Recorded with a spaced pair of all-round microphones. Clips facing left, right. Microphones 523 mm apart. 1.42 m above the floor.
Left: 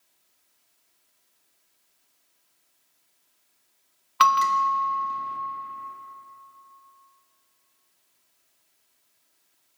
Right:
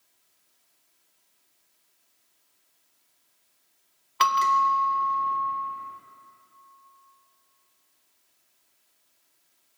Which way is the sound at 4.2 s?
30° left (ahead or behind).